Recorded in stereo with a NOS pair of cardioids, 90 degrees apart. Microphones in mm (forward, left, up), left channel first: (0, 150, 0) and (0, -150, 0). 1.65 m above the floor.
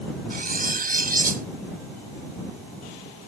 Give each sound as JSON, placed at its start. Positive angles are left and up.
{"t": 0.3, "sound": "cutlery clinking", "azimuth_deg": -30}